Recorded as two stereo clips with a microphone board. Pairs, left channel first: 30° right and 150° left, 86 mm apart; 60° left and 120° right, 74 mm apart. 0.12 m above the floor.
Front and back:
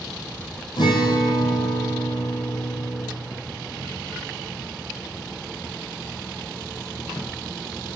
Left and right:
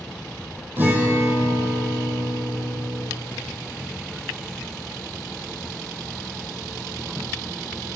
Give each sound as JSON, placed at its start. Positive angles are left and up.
{"t": 0.8, "sound": "a guitar", "azimuth_deg": -55, "distance_m": 0.9}